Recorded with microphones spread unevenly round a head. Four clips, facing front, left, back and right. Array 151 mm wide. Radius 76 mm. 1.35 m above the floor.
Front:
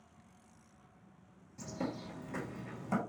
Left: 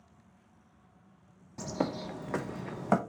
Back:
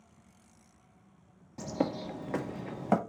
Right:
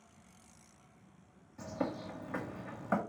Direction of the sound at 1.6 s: 140° left.